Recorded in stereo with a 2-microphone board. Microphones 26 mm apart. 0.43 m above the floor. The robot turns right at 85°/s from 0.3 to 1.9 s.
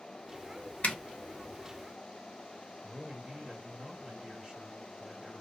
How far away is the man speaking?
About 1.5 m.